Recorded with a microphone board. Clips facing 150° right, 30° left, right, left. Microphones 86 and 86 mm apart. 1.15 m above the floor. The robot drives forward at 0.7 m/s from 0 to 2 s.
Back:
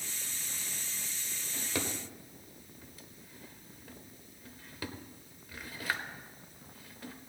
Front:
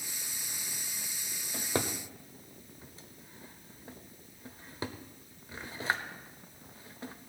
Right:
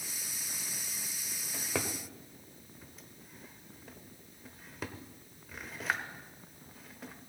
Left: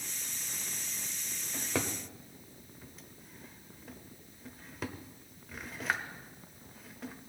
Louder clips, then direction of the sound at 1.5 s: Front 4 dB, left 1 dB; straight ahead.